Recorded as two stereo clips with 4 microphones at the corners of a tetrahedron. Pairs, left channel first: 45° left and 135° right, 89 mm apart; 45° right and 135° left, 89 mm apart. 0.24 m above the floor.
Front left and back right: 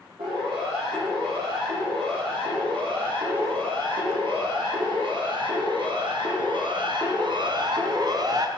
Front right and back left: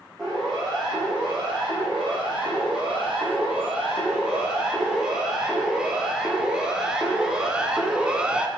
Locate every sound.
0.2 s a siren: 140° right, 9 m; by 8.5 s 150° right, 1.7 m